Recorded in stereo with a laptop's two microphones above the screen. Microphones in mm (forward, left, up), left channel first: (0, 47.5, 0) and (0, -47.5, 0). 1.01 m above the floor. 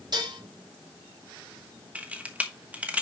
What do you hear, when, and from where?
0.1 s dishes clattering: 50° right (ahead or behind), 3 m
1.9 s a camera shutter: 15° right (ahead or behind), 1.1 m